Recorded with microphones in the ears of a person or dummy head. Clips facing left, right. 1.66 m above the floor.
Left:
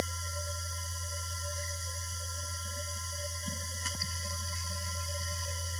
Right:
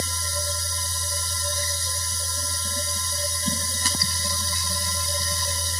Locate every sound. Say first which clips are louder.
0.0 s a machine running: right 5 dB; 70° right (ahead or behind)